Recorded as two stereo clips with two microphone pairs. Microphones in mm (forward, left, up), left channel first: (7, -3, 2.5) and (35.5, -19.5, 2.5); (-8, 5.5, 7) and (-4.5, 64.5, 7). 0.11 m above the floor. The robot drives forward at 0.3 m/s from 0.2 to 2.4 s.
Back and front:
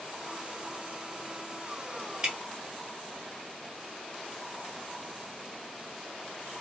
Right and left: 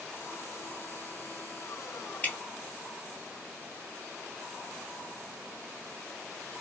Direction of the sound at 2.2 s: 65° right.